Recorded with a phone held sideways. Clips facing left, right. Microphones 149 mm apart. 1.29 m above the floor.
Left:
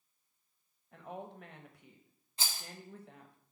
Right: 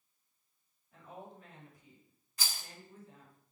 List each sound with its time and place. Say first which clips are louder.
0.9 s a woman speaking: left 5 dB; 60° left (ahead or behind), 1.3 m
2.4 s a rattle: left 1 dB; 25° left (ahead or behind), 1.3 m